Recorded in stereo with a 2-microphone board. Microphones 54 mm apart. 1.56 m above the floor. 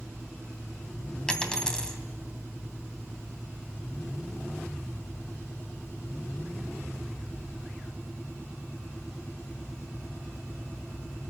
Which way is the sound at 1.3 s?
15° left (ahead or behind).